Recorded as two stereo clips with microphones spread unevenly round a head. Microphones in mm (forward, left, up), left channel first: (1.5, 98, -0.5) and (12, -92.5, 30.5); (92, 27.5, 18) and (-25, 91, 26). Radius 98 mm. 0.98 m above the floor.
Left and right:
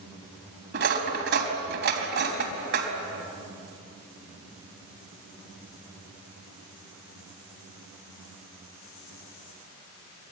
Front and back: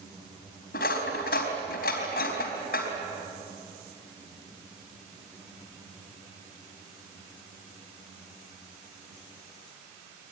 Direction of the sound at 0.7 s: 55° right.